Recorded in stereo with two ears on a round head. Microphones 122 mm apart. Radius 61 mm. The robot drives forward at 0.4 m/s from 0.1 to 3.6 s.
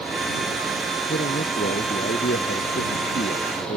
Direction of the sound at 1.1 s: 70° left (ahead or behind).